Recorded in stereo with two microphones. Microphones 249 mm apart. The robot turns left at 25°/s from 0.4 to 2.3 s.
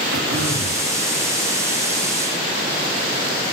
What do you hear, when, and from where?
0.1 s throat clearing: 60° right (ahead or behind), 2 m; by 0.8 s 65° right (ahead or behind), 2 m